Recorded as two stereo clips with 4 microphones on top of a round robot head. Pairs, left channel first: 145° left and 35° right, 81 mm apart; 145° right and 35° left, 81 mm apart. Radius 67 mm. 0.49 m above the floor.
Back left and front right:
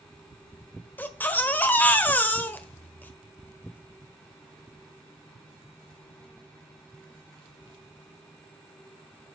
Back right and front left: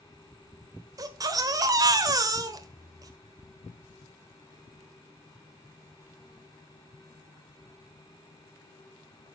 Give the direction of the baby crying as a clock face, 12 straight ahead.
9 o'clock.